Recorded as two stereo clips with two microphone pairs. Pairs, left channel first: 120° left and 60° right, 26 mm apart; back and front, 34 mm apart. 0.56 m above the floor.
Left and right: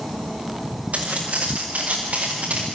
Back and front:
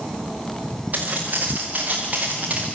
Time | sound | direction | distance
0.9 | footsteps | 40° right | 6 m